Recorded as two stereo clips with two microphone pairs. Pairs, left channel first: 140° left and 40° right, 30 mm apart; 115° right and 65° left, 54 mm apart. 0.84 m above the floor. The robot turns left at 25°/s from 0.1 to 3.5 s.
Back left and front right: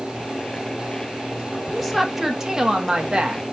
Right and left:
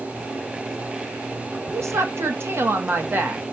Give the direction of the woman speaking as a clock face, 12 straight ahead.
10 o'clock.